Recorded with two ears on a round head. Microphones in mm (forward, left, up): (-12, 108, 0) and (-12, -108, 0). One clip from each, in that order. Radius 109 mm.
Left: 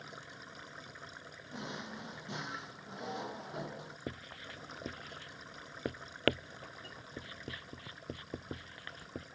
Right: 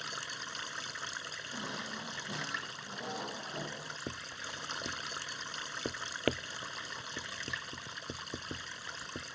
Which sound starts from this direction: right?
Running water, at 0.0 s.